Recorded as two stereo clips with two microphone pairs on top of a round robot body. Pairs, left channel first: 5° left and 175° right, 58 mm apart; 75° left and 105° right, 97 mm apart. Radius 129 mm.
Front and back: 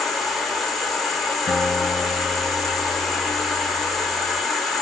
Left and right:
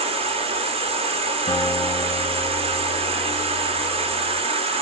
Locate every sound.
0.0 s an insect: 85° right, 0.8 m
1.5 s a guitar: 90° left, 2.5 m